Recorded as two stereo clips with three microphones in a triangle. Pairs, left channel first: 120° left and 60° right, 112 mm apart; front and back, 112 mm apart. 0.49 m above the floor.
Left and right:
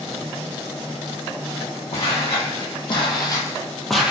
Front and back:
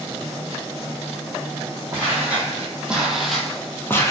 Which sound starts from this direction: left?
Footsteps, at 1.9 s.